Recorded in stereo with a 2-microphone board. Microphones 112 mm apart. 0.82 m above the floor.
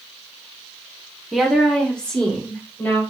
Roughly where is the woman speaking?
Centre.